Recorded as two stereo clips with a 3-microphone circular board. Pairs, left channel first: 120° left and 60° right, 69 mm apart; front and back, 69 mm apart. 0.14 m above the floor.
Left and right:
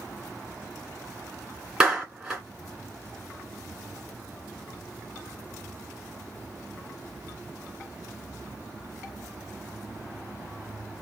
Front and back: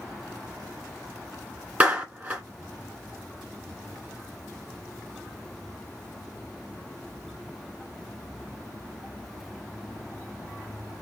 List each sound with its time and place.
1.8 s a clap: 130° right, 1.5 m